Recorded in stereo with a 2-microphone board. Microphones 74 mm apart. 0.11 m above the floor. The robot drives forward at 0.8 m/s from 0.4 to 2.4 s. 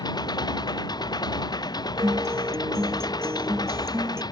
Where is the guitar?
50° right (ahead or behind); by 4.2 s 40° right (ahead or behind).